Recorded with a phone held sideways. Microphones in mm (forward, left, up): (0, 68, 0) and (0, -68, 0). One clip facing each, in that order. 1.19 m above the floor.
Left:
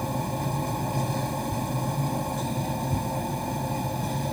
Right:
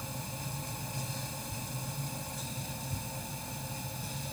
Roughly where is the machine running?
Left.